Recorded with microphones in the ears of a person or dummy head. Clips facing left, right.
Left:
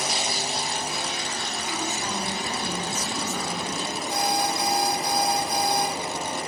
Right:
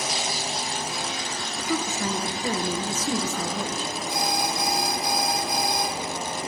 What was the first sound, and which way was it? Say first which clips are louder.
A woman speaking: right 6 dB; 70° right (ahead or behind).